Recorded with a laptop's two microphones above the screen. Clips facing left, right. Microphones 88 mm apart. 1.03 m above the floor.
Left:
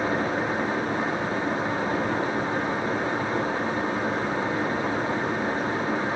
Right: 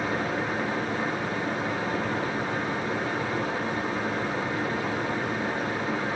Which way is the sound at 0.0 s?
25° left (ahead or behind).